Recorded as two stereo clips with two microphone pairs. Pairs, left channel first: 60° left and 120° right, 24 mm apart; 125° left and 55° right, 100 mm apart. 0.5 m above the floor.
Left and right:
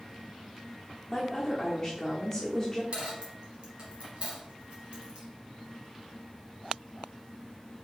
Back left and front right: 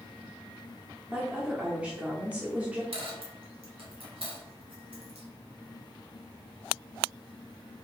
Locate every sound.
1.1 s a woman speaking: 15° left, 1.0 m
2.9 s a dropped coin: 75° right, 1.4 m